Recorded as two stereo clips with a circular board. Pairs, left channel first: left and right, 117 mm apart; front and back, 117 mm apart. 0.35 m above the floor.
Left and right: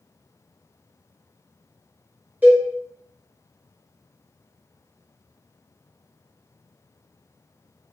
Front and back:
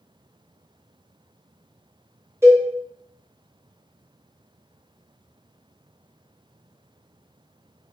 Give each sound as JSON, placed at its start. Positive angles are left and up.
{"t": 2.4, "sound": "a cowbell", "azimuth_deg": -150, "distance_m": 0.9}